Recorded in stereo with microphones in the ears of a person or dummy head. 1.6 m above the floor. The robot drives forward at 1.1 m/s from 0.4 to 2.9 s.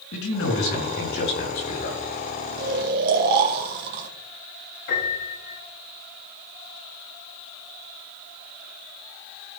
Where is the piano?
65° left (ahead or behind), 6 m.